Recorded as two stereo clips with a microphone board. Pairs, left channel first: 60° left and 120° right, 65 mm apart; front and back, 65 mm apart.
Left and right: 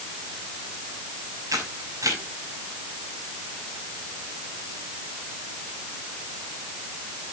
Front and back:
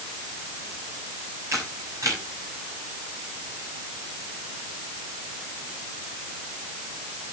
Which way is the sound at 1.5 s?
145° right.